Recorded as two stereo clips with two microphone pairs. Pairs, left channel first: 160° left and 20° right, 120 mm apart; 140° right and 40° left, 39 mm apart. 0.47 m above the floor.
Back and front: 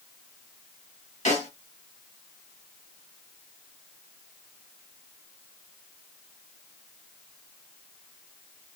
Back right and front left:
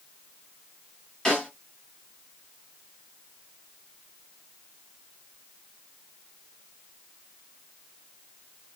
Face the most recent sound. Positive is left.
turn(degrees=150)